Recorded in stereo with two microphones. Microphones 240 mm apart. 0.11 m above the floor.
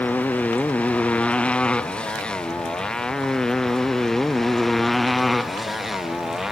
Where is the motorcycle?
5° left (ahead or behind); by 6.5 s centre (ahead or behind).